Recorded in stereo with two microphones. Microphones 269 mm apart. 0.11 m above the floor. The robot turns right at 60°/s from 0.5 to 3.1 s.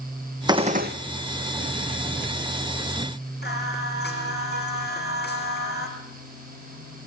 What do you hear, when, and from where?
0.5 s a gunshot: 15° right (ahead or behind), 1.5 m; by 0.9 s 40° right (ahead or behind), 1.5 m
3.4 s singing: 40° left (ahead or behind), 5.5 m